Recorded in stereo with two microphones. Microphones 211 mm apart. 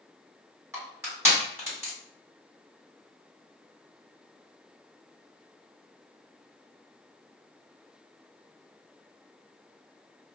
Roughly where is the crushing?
Centre.